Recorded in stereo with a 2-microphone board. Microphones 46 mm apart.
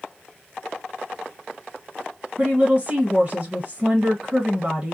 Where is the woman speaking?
30° right (ahead or behind), 1.4 m.